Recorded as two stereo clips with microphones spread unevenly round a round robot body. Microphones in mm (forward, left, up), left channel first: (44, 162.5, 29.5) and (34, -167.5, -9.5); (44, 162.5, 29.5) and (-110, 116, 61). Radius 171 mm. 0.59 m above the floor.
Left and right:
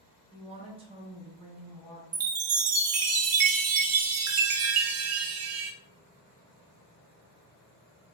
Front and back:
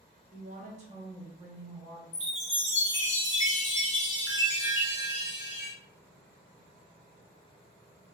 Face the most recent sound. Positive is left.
turn(degrees=-40)